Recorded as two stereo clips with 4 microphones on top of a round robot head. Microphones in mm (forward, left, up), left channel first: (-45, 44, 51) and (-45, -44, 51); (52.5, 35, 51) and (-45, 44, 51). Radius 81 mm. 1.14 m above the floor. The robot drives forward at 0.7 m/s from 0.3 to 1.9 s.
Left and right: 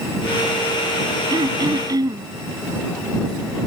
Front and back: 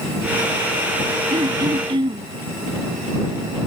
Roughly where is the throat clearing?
Behind right.